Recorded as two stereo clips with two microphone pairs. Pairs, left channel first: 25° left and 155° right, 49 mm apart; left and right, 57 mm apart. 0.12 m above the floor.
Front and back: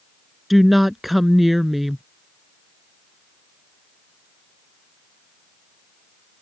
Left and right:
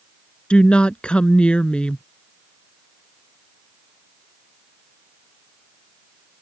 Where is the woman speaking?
120° left.